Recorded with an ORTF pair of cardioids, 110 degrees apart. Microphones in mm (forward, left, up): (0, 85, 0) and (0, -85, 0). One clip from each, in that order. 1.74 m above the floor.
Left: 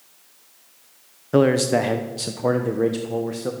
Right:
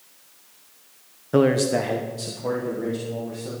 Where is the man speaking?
10° left, 1.0 m; by 3.5 s 65° left, 1.8 m.